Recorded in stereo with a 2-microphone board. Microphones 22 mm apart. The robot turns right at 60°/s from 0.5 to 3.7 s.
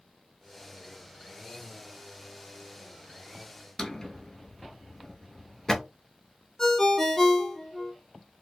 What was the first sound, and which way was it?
A drawer, 25° left (ahead or behind).